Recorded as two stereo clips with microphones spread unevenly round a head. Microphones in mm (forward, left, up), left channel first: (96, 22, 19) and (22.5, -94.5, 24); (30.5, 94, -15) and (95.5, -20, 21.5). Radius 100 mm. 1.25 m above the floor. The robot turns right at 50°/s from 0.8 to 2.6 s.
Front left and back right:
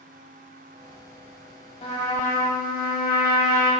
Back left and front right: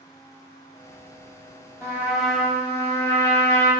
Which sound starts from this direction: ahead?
A trumpet, at 1.8 s.